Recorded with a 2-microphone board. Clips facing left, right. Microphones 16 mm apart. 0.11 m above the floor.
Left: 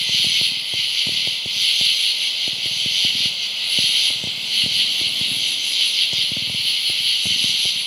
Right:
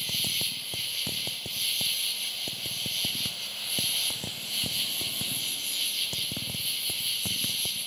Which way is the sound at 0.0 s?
45° left (ahead or behind).